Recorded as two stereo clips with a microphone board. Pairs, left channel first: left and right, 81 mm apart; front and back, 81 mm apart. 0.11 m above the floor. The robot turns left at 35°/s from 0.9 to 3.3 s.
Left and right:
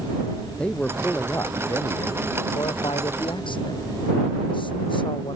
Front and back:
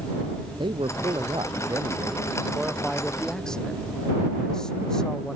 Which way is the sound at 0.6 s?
165° left.